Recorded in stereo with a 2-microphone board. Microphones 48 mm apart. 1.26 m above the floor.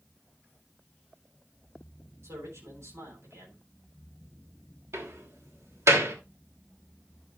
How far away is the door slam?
About 3 m.